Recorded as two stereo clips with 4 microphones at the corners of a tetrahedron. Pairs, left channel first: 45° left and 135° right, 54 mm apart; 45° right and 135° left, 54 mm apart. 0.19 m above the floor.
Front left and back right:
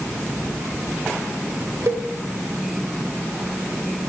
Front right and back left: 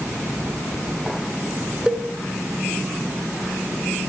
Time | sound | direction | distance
1.9 | a cowbell | 155° right | 0.6 m